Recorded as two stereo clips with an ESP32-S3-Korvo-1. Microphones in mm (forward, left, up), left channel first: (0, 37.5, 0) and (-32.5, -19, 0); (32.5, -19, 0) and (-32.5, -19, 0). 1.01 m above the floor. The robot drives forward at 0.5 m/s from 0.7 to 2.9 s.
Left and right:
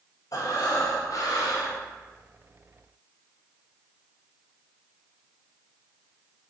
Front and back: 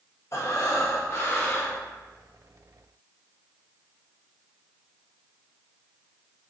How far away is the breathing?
About 1.1 m.